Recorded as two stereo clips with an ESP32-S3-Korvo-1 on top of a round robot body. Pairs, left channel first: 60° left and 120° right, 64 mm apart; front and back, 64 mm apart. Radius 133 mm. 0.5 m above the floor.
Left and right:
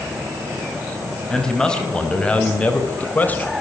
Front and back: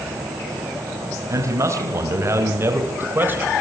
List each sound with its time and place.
1.3 s a man speaking: 140° left, 5 m; by 3.5 s 120° left, 4 m